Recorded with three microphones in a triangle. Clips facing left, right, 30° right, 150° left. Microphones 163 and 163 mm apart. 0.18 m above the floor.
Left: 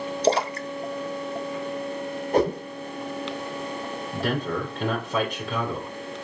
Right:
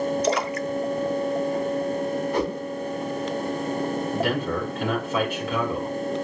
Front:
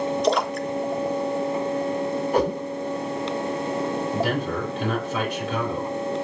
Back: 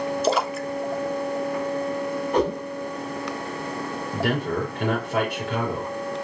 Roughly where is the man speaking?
Behind left.